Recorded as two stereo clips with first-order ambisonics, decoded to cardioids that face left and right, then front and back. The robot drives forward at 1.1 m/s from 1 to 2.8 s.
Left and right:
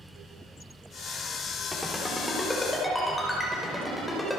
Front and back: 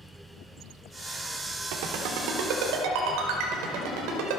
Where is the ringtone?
175° left, 2.5 m.